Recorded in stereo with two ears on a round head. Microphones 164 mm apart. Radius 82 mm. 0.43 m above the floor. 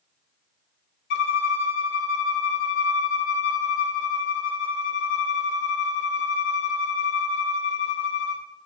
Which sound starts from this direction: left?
A violin, at 1.1 s.